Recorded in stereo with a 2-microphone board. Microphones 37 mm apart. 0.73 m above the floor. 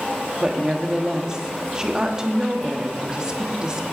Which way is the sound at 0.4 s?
20° right (ahead or behind).